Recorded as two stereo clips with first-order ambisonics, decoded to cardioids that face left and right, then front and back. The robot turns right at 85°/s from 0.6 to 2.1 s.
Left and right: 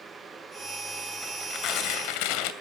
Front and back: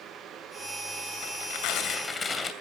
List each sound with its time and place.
1.2 s tearing paper: straight ahead, 2.5 m; by 2.5 s 75° left, 2.5 m